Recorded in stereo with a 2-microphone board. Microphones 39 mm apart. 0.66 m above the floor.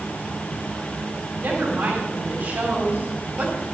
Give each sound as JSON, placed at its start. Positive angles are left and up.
{"t": 1.4, "sound": "a woman speaking", "side_deg": -65, "distance_m": 4.5}